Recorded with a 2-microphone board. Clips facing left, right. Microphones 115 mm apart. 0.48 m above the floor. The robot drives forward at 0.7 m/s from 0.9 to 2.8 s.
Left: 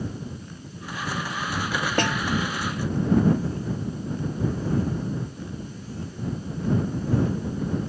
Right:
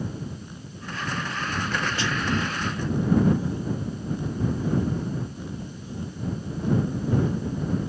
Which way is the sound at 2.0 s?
55° left (ahead or behind).